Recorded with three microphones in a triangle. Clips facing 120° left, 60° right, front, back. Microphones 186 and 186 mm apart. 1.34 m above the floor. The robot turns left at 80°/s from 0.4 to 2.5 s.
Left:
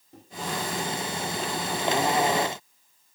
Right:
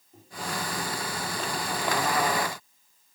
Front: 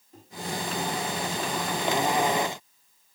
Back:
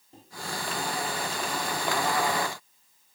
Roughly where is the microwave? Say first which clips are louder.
Left 4 dB, front 1 dB; behind left.